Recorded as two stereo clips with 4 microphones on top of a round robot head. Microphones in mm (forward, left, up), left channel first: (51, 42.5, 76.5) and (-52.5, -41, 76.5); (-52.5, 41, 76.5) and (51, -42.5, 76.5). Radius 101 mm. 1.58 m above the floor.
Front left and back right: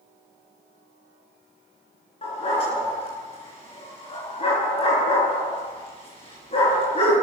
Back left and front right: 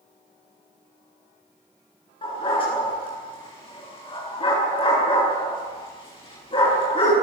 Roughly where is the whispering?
No whispering in this recording.